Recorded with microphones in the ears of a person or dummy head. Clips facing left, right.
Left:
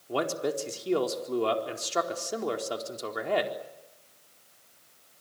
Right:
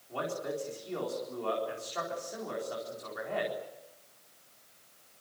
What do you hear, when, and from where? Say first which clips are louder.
0.1 s a man speaking: left 6 dB; 90° left, 4 m